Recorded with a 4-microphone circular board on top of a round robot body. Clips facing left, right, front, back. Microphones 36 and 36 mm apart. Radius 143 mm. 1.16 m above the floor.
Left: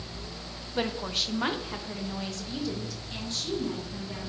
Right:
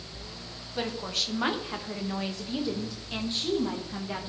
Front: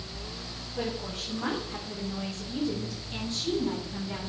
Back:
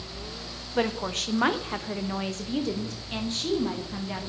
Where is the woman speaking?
165° left, 1.1 m; by 4.3 s 135° right, 2.5 m.